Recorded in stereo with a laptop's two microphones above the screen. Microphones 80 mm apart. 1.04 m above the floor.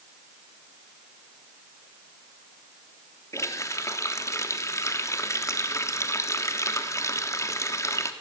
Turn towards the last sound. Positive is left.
turn(degrees=35)  # may be behind; listen again after turning